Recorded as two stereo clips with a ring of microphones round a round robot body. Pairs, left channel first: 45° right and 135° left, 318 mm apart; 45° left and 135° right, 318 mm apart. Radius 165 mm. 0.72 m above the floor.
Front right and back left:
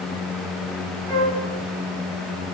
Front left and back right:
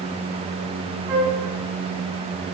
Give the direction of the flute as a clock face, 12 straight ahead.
5 o'clock.